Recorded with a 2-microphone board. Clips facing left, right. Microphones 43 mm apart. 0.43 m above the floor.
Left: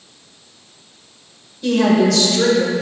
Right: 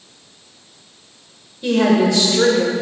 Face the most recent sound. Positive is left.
turn(degrees=-25)  # may be behind; listen again after turning